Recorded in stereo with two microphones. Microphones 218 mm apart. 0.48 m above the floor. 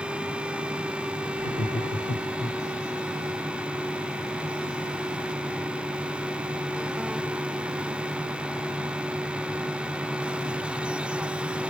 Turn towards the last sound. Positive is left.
turn(degrees=50)  # may be behind; listen again after turning